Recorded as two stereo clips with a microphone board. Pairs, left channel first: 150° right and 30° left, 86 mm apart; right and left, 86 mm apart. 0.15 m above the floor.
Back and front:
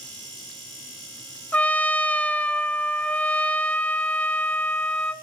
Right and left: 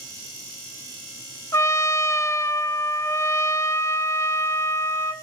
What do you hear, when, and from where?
1.5 s a trumpet: 90° right, 0.7 m